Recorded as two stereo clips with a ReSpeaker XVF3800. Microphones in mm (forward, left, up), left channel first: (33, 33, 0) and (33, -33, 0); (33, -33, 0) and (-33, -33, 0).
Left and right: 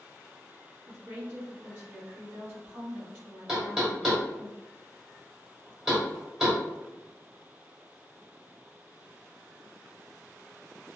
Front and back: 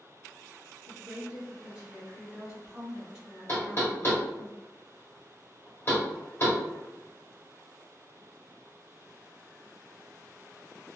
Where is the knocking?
5° right, 1.3 m.